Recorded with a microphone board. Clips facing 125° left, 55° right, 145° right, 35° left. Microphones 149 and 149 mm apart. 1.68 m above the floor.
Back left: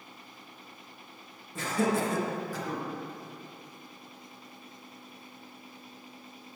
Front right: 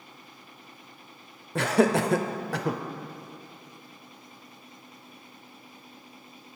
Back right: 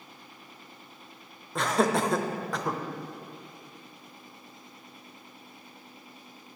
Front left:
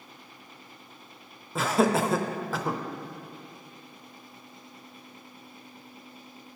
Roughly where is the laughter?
Ahead right.